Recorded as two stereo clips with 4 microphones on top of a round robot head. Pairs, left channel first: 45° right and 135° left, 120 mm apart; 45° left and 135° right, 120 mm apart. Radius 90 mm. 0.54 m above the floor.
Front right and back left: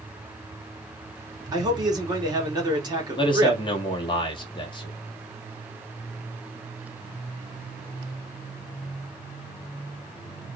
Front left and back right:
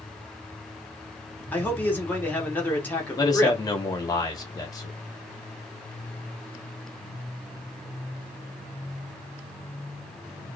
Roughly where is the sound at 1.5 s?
Left.